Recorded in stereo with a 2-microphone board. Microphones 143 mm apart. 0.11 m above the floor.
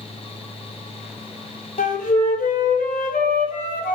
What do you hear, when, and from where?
1.8 s a flute: 75° left (ahead or behind), 0.5 m